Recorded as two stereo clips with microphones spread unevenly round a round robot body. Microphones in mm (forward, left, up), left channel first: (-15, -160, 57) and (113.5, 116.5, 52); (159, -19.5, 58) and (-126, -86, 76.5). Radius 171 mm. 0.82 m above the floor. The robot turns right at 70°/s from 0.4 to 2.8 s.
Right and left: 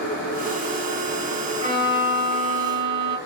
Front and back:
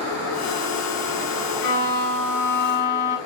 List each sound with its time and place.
1.6 s a violin: 5° right, 1.9 m; by 3.2 s 80° left, 1.9 m